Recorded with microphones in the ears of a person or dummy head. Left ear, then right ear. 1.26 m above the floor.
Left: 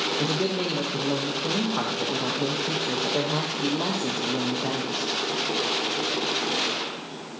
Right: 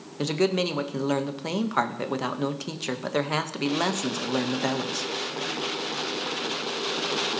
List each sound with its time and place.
0.2 s a man speaking: 65° right (ahead or behind), 1.1 m